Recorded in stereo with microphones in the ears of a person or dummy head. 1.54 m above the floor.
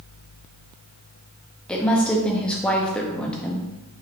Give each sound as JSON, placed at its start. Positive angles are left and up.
{"t": 1.7, "sound": "a woman speaking", "side_deg": 5, "distance_m": 0.5}